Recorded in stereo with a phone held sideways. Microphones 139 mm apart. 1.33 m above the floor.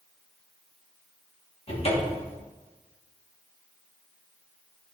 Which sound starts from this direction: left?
A cupboard door, at 1.7 s.